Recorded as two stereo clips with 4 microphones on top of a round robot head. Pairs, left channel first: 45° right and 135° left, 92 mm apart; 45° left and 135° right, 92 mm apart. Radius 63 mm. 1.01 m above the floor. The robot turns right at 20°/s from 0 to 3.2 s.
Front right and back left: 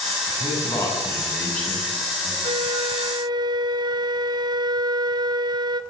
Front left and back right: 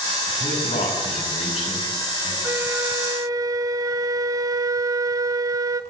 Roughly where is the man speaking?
Ahead.